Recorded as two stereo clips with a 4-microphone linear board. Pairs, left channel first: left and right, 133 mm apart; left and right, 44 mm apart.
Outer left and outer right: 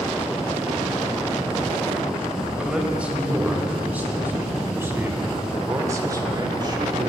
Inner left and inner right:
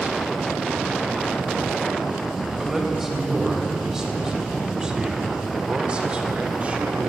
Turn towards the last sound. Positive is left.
turn(degrees=-35)  # may be behind; listen again after turning